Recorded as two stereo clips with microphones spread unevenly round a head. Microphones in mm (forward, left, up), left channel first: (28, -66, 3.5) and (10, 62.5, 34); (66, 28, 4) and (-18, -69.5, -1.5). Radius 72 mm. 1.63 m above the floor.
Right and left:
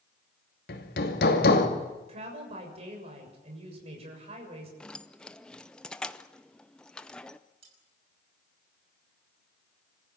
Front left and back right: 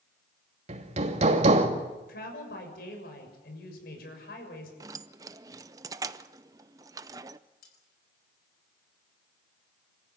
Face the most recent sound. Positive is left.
turn(degrees=60)